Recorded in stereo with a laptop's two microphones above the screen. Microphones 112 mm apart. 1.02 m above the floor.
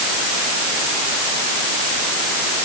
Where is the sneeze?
No sneeze in this recording.